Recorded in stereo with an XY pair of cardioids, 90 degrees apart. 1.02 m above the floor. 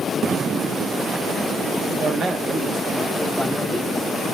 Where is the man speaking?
70° right, 1.4 m; by 4.2 s straight ahead, 2.5 m.